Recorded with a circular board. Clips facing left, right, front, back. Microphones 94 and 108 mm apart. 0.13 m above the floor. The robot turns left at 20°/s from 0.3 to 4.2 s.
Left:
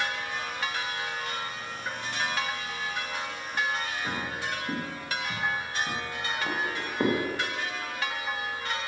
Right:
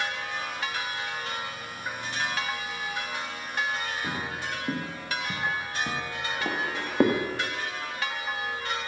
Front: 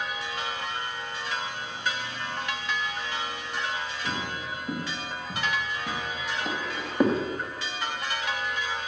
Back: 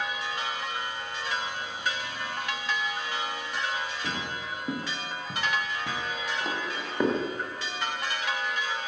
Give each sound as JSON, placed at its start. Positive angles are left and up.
{"t": 4.0, "sound": "footsteps", "azimuth_deg": -130, "distance_m": 3.5}